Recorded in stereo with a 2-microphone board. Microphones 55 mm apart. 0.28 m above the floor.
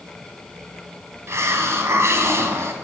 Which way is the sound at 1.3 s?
60° right (ahead or behind).